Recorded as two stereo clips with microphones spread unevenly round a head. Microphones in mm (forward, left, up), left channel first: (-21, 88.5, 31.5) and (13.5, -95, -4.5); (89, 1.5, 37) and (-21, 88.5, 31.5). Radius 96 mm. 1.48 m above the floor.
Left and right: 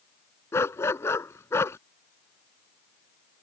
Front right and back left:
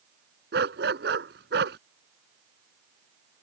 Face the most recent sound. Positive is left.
turn(degrees=175)